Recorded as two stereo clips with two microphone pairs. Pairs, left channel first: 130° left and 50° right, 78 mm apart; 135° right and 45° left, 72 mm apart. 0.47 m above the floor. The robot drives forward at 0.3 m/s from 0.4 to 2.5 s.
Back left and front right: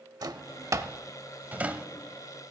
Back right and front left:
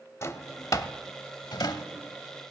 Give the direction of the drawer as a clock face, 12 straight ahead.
3 o'clock.